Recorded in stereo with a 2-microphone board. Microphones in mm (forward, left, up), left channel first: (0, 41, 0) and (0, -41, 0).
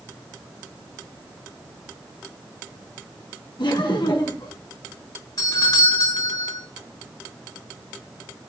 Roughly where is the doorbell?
Left.